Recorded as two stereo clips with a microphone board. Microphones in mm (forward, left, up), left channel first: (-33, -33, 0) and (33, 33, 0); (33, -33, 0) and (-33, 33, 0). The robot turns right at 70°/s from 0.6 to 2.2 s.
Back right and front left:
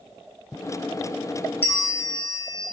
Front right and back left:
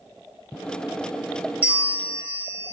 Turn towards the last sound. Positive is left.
turn(degrees=-165)